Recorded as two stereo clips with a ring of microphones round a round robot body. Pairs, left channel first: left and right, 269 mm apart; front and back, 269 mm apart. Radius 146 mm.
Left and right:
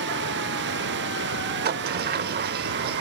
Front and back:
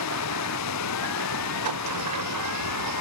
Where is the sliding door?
145° right.